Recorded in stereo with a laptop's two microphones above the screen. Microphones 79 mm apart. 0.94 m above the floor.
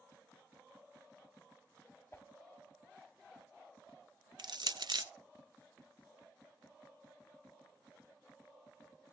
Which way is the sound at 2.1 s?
30° left (ahead or behind).